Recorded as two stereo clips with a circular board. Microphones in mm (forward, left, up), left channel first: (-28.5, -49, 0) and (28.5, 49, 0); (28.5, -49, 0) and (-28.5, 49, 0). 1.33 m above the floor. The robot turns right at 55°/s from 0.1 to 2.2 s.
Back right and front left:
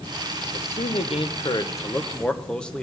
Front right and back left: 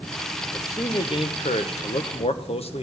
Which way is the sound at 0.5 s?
130° right.